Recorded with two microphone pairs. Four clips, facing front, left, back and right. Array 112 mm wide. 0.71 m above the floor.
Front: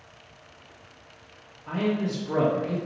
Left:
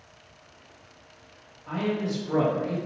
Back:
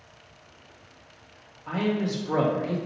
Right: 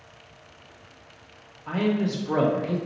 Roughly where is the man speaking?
Behind right.